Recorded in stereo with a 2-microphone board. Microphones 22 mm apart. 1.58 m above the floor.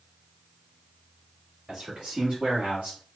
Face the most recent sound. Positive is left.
turn(degrees=-70)  # may be behind; listen again after turning